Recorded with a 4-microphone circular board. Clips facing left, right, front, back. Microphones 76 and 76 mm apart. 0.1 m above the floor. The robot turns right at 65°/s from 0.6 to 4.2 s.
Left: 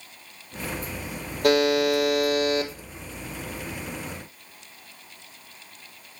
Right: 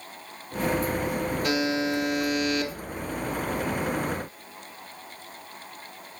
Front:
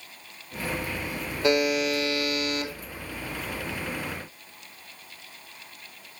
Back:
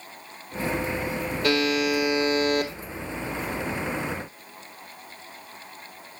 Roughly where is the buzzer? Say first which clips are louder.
Left 9 dB, front 1 dB; left.